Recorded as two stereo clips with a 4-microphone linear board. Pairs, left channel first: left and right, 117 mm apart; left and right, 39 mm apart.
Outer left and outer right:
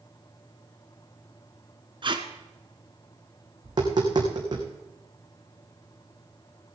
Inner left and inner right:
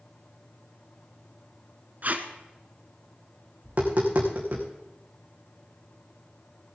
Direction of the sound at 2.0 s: 45° right (ahead or behind).